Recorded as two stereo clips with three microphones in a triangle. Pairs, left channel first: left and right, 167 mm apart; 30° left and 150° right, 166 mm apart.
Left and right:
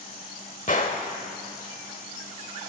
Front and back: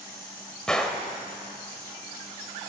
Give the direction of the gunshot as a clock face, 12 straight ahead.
8 o'clock.